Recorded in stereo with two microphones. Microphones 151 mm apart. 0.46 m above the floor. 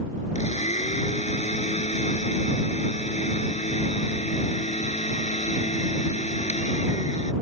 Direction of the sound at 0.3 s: 50° left (ahead or behind).